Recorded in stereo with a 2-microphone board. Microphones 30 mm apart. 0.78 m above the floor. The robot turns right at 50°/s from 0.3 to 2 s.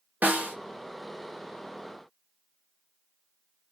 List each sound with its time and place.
0.2 s a snare drum: 75° right (ahead or behind), 1.0 m